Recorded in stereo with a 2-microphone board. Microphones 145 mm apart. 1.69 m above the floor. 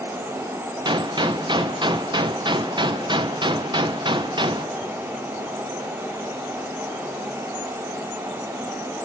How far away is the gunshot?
About 0.8 m.